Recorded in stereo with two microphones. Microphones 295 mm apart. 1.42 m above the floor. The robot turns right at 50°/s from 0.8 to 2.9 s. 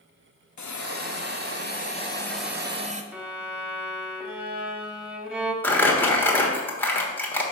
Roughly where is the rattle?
No rattle in this recording.